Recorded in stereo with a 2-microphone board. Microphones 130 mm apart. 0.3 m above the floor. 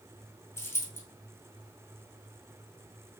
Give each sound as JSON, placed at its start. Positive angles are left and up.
{"t": 0.6, "sound": "a dropped coin", "side_deg": 20, "distance_m": 1.2}